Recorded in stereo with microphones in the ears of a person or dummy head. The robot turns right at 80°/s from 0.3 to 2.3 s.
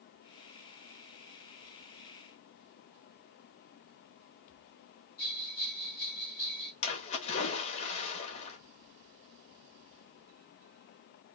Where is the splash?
45° left (ahead or behind), 1.5 m.